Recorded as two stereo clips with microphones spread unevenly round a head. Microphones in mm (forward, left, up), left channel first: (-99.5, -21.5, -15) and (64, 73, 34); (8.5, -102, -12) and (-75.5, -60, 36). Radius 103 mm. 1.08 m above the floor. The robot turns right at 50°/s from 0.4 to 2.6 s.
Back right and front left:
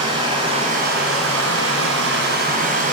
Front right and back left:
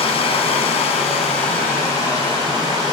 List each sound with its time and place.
0.0 s running water: 40° right, 8 m; by 2.9 s 70° left, 8 m